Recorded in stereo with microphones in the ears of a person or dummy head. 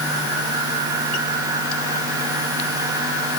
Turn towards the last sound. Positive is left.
No sound to turn to.